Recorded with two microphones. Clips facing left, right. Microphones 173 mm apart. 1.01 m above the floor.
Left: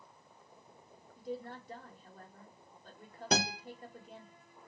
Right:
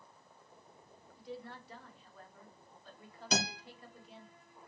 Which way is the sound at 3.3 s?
60° left (ahead or behind).